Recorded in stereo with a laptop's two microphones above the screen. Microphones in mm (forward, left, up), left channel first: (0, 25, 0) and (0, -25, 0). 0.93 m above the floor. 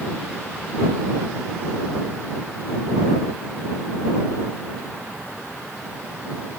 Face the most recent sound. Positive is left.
No sound to turn to.